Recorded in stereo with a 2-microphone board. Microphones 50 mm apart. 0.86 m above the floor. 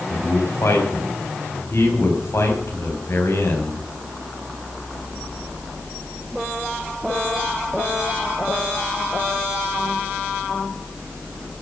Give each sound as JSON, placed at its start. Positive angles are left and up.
{"t": 0.1, "sound": "a man speaking", "side_deg": 70, "distance_m": 6.0}